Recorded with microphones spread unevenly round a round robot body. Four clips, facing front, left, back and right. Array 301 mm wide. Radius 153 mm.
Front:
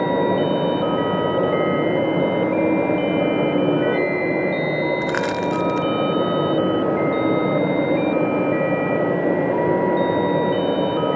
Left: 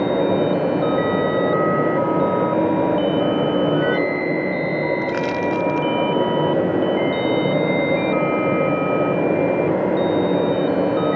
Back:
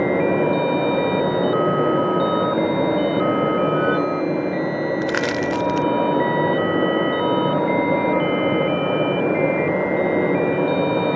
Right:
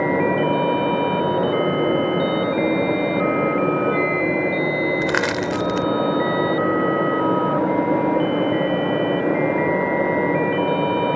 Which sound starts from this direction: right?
Crushing, at 5.0 s.